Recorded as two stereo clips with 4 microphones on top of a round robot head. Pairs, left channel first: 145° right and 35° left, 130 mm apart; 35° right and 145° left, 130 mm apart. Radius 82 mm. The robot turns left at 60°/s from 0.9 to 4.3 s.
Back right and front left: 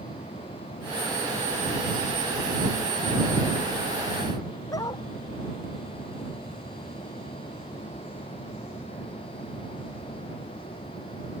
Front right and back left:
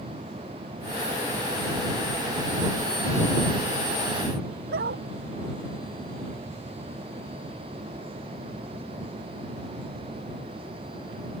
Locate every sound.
4.7 s a dog barking: 150° left